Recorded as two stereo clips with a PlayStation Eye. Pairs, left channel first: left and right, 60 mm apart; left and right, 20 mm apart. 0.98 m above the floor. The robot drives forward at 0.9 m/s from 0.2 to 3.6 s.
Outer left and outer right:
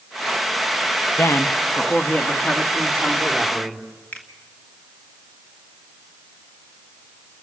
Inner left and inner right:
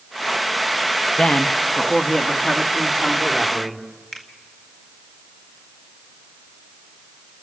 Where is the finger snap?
30° left (ahead or behind), 2.0 m.